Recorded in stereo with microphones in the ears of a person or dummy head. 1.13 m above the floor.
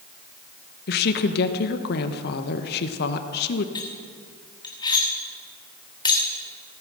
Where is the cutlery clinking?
20° left (ahead or behind), 1.3 m.